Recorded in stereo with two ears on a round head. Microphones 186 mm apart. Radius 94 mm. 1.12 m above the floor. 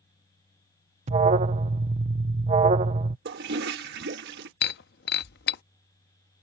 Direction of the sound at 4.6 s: 55° left (ahead or behind).